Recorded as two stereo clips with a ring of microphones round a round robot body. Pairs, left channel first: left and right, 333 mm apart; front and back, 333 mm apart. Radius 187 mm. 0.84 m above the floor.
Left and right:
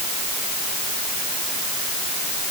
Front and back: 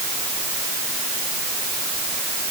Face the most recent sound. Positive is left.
No sound to turn to.